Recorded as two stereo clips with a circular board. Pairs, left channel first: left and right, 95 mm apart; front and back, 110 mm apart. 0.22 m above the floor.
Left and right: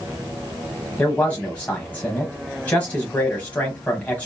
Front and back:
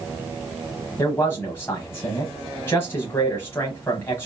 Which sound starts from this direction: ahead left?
A man speaking, at 1.0 s.